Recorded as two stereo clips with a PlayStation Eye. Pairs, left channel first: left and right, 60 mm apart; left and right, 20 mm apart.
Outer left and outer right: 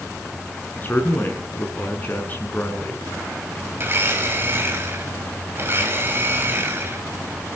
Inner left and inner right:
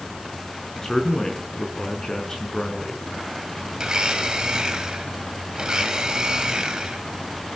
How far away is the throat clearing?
I don't hear throat clearing.